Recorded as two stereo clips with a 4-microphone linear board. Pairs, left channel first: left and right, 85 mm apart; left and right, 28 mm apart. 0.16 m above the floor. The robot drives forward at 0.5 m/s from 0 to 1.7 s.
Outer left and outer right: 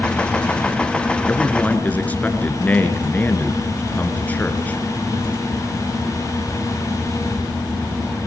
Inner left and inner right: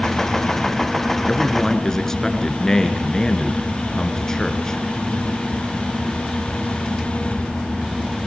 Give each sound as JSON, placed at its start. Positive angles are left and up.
{"t": 1.3, "sound": "a man speaking", "side_deg": 15, "distance_m": 3.0}